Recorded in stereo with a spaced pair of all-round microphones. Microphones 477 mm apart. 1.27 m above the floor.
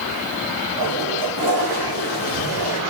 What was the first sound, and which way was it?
A toilet flushing, 50° right (ahead or behind).